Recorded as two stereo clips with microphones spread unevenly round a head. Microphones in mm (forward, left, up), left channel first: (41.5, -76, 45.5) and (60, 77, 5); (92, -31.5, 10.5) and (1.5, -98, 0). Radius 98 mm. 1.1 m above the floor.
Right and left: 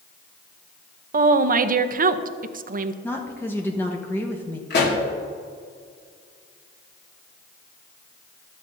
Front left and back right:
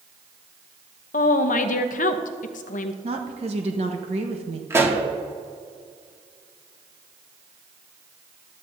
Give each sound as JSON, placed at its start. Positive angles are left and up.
{"t": 1.1, "sound": "a woman speaking", "azimuth_deg": 55, "distance_m": 0.7}
{"t": 3.0, "sound": "a woman speaking", "azimuth_deg": 180, "distance_m": 1.0}
{"t": 4.7, "sound": "a pop", "azimuth_deg": -80, "distance_m": 1.9}